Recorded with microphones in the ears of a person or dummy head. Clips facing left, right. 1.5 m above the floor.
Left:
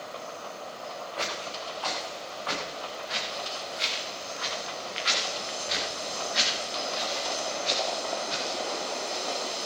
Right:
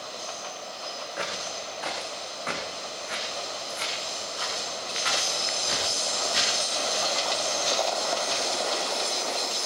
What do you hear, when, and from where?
1.2 s footsteps: 20° right (ahead or behind), 5 m; by 8.6 s 80° right, 8.5 m